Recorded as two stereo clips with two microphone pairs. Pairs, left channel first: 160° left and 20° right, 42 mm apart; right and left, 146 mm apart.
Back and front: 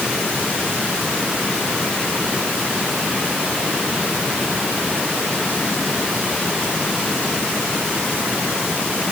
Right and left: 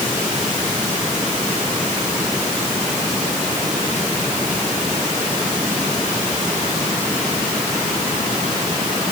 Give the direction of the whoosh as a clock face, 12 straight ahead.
No whoosh in this recording.